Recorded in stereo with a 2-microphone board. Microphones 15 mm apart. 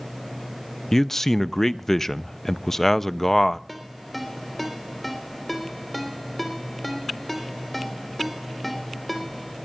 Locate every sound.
0.9 s a man speaking: 20° left (ahead or behind), 0.5 m
3.7 s a ringtone: 10° left (ahead or behind), 3.5 m